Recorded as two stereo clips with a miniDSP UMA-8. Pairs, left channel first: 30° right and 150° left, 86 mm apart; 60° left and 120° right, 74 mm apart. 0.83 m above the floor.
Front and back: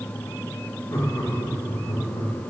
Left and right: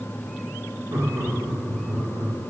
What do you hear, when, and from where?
0.9 s laughter: 75° right, 1.8 m; by 2.3 s 70° right, 2.5 m